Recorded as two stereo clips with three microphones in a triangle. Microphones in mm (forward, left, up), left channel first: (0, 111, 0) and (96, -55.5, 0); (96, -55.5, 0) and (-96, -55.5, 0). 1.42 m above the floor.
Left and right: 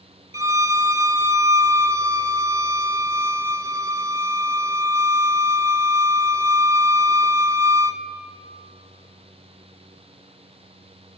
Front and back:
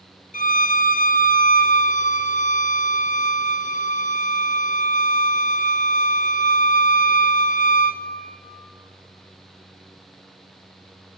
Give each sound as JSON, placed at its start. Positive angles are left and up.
{"t": 0.3, "sound": "a violin", "azimuth_deg": 10, "distance_m": 0.6}